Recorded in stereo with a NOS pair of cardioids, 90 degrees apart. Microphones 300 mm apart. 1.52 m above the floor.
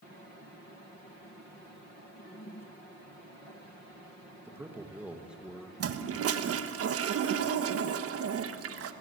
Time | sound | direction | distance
4.5 | a man speaking | 10° right | 2.5 m
5.8 | a toilet flushing | 50° right | 1.4 m